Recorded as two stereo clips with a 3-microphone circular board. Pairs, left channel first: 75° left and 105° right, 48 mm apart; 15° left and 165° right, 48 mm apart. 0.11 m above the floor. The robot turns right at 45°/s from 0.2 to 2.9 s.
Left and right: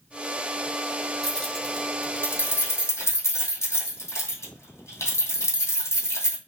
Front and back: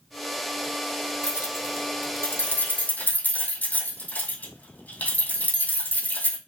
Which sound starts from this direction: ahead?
Keys jangling, at 1.2 s.